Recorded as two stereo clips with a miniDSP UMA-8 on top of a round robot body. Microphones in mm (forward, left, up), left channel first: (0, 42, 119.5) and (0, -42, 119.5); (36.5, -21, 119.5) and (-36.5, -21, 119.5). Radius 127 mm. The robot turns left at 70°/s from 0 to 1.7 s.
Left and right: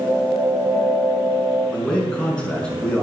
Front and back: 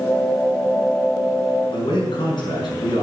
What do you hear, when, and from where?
1.7 s a man speaking: 10° left, 6 m